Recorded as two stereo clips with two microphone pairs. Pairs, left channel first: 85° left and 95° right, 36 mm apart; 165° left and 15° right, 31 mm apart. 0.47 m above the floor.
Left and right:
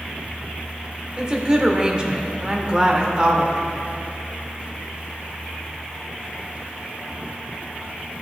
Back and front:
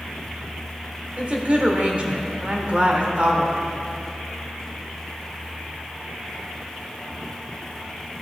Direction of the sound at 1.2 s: 35° right.